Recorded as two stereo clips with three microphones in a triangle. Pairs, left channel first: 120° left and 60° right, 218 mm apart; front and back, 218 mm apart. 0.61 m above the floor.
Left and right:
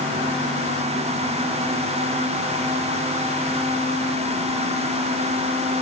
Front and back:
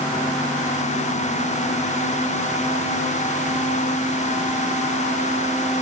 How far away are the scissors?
I don't hear scissors.